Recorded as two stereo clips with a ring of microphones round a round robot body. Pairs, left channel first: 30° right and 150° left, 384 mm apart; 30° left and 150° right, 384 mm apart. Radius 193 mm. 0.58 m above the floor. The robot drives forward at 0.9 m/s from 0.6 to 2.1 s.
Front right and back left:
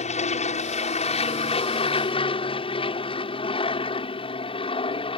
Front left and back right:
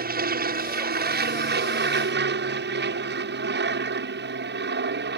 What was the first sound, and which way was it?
An aircraft, 95° right.